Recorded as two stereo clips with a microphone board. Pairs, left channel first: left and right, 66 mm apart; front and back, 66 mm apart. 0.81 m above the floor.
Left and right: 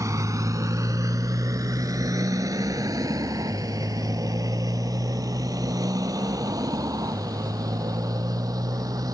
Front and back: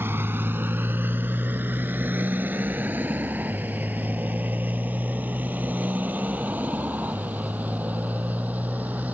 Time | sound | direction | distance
0.0 | a motorcycle | 125° right | ?